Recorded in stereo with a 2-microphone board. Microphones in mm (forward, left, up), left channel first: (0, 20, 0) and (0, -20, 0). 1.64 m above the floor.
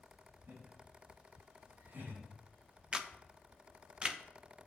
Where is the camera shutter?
20° right (ahead or behind), 0.7 m.